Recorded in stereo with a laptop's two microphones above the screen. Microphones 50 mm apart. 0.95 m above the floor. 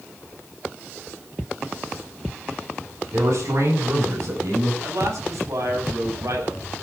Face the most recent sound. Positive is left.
turn(degrees=-80)